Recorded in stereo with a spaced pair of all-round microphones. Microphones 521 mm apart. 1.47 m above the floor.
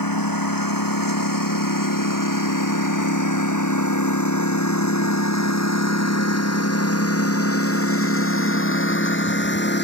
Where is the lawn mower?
45° left (ahead or behind); by 9.9 s 20° left (ahead or behind).